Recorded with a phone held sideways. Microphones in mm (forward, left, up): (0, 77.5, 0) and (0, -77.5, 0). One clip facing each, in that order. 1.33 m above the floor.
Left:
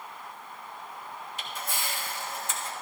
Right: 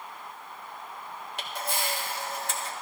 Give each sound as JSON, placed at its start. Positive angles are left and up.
{"t": 1.4, "sound": "a camera shutter", "side_deg": -65, "distance_m": 1.6}